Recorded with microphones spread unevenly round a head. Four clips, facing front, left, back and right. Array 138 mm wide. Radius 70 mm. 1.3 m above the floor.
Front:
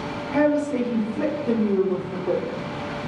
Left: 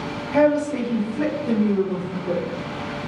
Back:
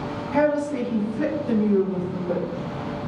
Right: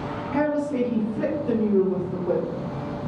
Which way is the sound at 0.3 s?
20° left.